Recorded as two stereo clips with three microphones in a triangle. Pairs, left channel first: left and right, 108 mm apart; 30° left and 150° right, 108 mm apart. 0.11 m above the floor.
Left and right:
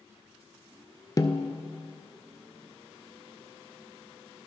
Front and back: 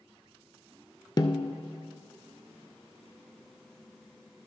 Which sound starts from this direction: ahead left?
A snare drum, at 1.2 s.